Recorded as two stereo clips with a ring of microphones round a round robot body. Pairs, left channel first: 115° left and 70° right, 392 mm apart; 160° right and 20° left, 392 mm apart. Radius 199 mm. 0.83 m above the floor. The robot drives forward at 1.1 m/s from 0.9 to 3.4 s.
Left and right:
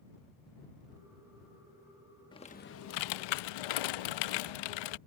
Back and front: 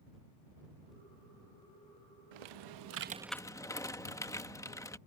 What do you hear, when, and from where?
2.3 s typing on a keyboard: 35° left; by 5.0 s 120° left